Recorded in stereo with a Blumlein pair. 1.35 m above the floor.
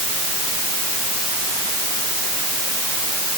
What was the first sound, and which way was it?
Only background noise.